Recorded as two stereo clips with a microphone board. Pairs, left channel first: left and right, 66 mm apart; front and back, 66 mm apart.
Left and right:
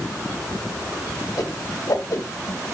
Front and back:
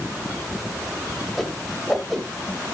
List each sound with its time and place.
1.4 s a whoosh: 85° left, 2 m